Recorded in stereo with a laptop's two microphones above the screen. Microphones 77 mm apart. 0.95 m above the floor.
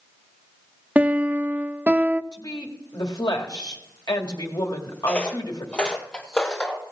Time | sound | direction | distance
0.9 | a piano | 20° right (ahead or behind) | 0.5 m
2.3 | a woman speaking | 60° left (ahead or behind) | 1.9 m
5.1 | footsteps | 15° left (ahead or behind) | 1.3 m